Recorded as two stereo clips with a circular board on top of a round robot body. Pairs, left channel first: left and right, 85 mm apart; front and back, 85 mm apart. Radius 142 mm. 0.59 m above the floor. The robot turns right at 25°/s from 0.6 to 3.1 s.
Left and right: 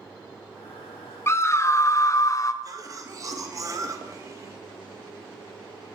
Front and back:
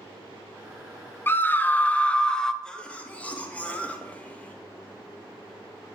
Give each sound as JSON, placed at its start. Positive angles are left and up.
{"t": 1.3, "sound": "a scream", "azimuth_deg": 50, "distance_m": 0.7}
{"t": 2.6, "sound": "a cough", "azimuth_deg": -75, "distance_m": 1.2}